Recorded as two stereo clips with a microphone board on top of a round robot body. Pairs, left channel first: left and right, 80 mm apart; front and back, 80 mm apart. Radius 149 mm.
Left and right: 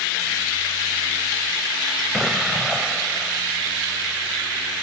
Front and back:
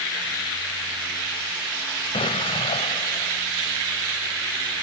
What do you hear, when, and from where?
2.1 s an explosion: straight ahead